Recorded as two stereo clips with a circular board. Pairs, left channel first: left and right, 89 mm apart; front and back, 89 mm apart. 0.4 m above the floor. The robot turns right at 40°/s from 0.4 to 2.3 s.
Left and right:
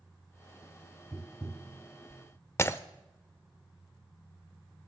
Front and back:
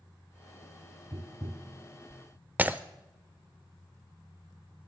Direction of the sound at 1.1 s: 170° right.